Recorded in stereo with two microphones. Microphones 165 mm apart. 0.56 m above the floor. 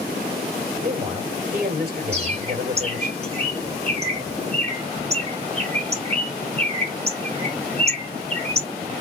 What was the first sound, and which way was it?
A man speaking, 55° right (ahead or behind).